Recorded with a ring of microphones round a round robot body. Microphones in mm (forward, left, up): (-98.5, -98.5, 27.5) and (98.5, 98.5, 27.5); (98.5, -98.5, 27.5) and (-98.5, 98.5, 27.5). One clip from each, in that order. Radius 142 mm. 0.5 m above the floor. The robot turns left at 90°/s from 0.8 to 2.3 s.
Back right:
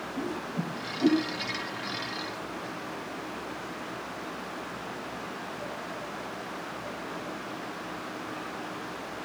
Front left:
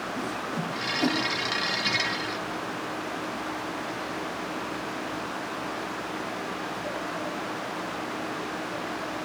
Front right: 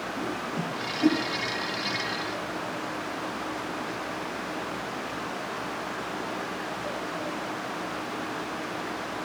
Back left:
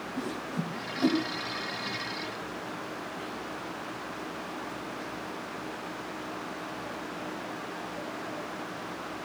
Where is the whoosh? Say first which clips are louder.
Front left 3 dB, front right 4 dB; 75° left, 2 m; by 1.2 s 40° left, 2 m.